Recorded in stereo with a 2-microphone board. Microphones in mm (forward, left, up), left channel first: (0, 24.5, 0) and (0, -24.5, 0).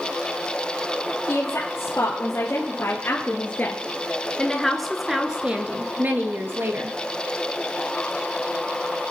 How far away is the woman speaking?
About 3 m.